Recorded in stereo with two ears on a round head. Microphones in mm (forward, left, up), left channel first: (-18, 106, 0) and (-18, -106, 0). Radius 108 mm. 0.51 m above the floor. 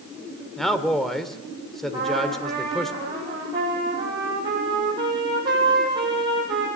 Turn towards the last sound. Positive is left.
turn(degrees=-20)  # may be behind; listen again after turning